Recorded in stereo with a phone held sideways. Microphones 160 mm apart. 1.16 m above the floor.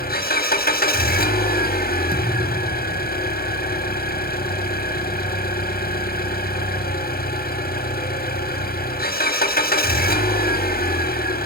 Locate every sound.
0.0 s an engine running: 70° left (ahead or behind), 1.8 m
2.1 s a thud: 65° right (ahead or behind), 3 m